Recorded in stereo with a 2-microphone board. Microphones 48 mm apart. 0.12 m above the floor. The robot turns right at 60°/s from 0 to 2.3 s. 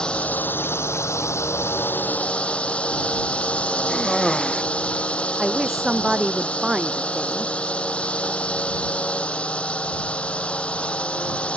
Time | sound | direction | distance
0.0 | a drone | 15° left | ?
3.9 | a cough | 10° left (ahead or behind) | ?
5.4 | a woman speaking | 5° right (ahead or behind) | ?